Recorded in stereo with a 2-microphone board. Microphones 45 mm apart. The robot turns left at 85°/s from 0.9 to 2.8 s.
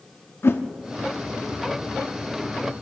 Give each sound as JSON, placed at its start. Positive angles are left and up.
{"t": 0.4, "sound": "a whoosh", "side_deg": 60, "distance_m": 0.8}